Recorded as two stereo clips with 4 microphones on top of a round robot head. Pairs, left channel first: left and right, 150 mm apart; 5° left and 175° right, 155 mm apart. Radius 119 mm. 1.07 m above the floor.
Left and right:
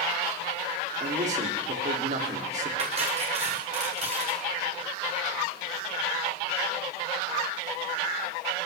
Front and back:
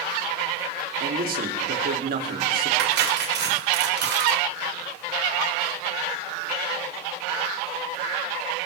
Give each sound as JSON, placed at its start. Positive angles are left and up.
{"t": 1.0, "sound": "a man speaking", "azimuth_deg": -140, "distance_m": 3.0}
{"t": 2.8, "sound": "cutlery clinking", "azimuth_deg": -150, "distance_m": 2.5}